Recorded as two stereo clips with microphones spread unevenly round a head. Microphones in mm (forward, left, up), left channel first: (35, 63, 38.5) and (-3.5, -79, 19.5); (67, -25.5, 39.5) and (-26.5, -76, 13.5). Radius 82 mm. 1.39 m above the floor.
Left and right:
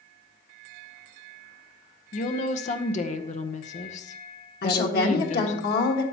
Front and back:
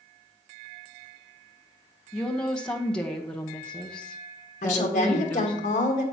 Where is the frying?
I don't hear frying.